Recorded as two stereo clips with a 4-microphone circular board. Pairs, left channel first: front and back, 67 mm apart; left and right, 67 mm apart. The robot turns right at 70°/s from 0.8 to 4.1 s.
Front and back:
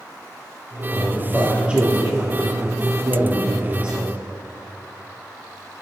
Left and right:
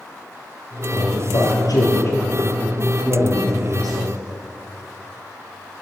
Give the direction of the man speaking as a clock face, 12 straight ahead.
10 o'clock.